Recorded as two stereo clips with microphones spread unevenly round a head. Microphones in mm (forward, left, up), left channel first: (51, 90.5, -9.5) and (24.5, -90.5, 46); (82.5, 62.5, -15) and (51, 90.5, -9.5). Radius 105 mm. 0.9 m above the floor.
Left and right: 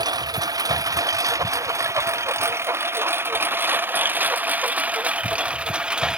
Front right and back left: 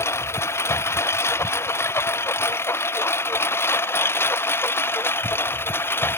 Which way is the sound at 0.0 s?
30° right.